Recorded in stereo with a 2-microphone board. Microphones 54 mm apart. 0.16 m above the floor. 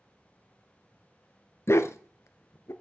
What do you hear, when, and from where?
1.7 s a dog barking: 55° left (ahead or behind), 0.6 m